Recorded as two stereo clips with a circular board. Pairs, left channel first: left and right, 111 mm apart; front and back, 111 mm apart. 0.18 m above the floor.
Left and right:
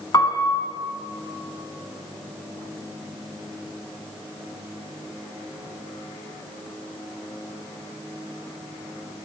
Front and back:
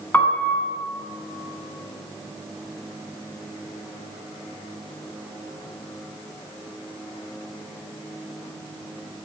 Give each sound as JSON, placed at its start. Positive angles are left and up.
{"t": 0.1, "sound": "a piano", "azimuth_deg": 65, "distance_m": 1.3}